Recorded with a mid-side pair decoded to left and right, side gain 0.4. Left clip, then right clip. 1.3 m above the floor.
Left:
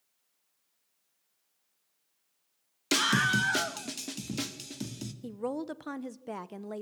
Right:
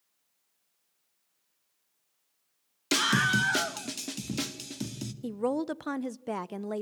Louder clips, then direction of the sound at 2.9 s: Right 1 dB; 5° left.